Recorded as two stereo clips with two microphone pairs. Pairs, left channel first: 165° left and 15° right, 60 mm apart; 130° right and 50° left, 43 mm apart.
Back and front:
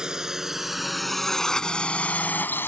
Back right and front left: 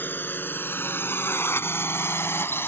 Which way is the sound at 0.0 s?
95° right.